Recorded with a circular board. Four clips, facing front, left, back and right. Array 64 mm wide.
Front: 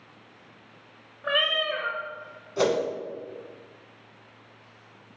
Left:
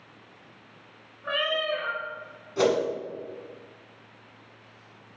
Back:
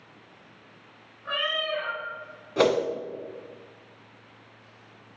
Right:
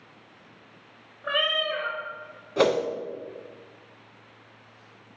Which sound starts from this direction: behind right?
A whoosh, at 2.6 s.